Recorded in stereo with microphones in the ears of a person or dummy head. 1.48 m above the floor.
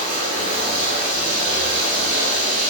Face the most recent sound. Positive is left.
turn(degrees=-35)  # may be behind; listen again after turning